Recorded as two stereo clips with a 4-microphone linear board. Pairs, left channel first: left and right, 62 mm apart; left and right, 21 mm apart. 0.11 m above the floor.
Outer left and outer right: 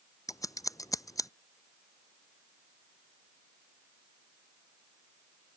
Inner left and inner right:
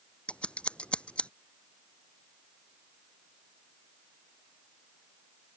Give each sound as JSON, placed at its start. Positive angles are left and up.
{"t": 0.3, "sound": "scissors", "side_deg": 65}